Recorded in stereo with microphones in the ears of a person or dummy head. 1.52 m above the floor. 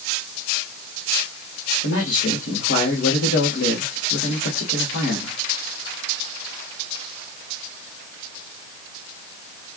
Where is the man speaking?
75° left (ahead or behind), 1.8 m.